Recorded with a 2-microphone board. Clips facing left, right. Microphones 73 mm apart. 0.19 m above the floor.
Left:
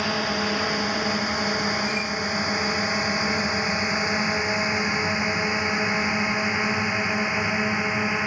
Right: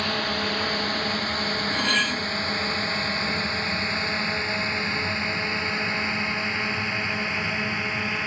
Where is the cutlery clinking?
85° right.